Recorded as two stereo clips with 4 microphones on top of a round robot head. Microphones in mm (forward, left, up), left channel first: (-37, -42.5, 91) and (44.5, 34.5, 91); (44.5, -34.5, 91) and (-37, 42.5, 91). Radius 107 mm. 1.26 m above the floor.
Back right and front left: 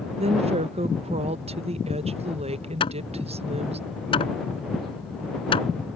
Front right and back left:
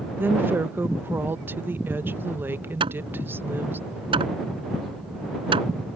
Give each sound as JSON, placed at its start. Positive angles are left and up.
{"t": 0.2, "sound": "a woman speaking", "azimuth_deg": 65}
{"t": 2.8, "sound": "hammering", "azimuth_deg": 180}